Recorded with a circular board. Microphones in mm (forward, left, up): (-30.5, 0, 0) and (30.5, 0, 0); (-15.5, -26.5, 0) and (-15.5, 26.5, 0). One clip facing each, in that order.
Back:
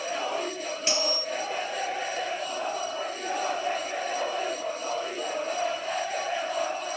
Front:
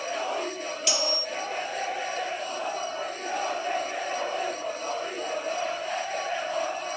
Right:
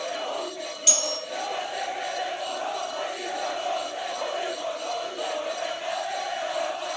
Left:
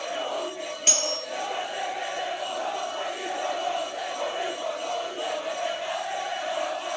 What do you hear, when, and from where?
0.9 s cutlery clinking: 125° left, 1.6 m